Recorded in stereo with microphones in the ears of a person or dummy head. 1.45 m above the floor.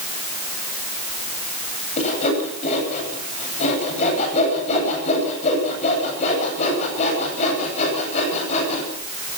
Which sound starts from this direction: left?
Sawing, at 2.0 s.